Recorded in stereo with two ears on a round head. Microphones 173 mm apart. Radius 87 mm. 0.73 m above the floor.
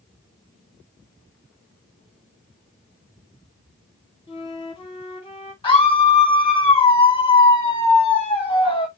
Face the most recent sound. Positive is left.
turn(degrees=30)  # may be behind; listen again after turning